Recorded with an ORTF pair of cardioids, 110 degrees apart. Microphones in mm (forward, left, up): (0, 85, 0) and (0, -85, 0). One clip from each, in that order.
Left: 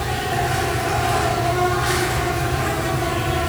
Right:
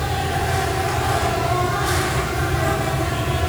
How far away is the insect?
About 4.5 m.